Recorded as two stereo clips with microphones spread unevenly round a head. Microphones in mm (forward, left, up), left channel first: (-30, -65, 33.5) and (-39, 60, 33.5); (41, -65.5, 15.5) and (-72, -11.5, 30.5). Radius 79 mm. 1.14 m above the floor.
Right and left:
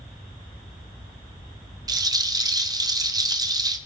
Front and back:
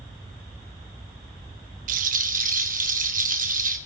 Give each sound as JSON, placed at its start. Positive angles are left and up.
{"t": 1.9, "sound": "a rattle", "azimuth_deg": 150, "distance_m": 1.4}